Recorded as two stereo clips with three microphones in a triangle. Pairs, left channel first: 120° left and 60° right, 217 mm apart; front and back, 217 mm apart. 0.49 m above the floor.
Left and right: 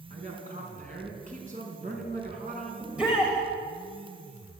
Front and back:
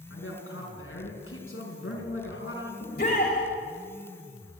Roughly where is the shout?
Ahead left.